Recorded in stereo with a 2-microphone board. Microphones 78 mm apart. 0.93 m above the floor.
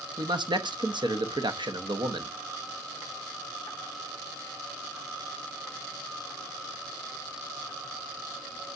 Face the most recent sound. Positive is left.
turn(degrees=-70)  # may be behind; listen again after turning